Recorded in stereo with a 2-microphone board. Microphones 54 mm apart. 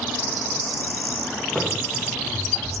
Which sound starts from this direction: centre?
Running footsteps, at 1.6 s.